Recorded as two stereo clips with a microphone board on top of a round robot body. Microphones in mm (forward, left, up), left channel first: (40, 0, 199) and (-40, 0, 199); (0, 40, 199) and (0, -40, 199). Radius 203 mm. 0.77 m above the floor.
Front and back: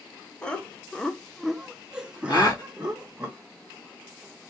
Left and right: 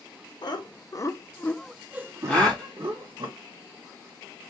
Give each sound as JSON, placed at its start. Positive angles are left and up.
{"t": 0.4, "sound": "laughter", "azimuth_deg": 75, "distance_m": 0.9}
{"t": 2.3, "sound": "a gasp", "azimuth_deg": 15, "distance_m": 1.1}